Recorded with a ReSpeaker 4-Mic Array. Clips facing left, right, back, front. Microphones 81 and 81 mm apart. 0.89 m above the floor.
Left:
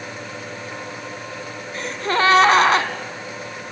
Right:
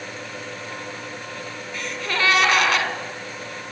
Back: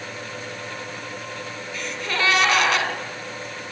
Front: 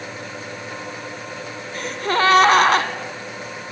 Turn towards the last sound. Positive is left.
turn(degrees=40)